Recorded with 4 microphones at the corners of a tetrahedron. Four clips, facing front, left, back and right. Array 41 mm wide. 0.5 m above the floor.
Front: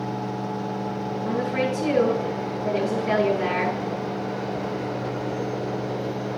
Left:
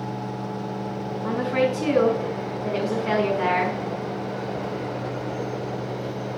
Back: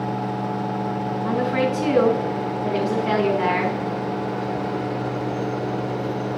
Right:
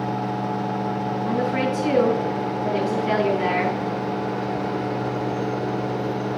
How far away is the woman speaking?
About 5.5 m.